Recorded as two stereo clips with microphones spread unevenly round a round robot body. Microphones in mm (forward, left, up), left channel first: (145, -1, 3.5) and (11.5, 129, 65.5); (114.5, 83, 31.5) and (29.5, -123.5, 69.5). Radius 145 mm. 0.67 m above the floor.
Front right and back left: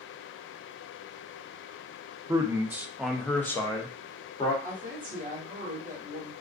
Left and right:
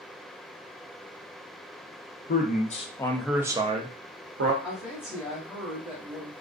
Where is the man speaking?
50° left, 0.8 m; by 4.5 s 85° right, 0.8 m.